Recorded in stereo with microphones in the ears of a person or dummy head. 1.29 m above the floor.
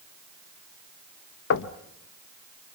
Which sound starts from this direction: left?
Knocking, at 1.5 s.